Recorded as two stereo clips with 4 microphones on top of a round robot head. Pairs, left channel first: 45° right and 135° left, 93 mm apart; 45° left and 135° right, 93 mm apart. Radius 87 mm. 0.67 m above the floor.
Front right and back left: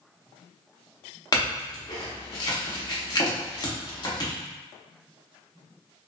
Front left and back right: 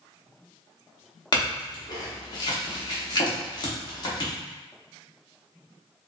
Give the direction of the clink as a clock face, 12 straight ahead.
12 o'clock.